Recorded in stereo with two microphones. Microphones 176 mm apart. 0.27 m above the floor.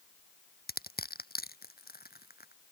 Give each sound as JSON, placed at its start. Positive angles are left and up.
{"t": 0.7, "sound": "crushing", "side_deg": 60}